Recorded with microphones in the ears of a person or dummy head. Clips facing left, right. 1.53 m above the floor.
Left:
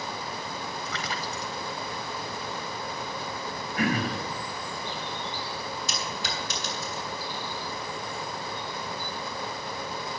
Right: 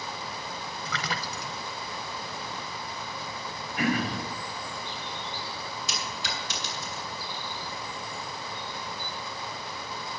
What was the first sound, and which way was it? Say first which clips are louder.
A splash: left 1 dB; 60° right (ahead or behind).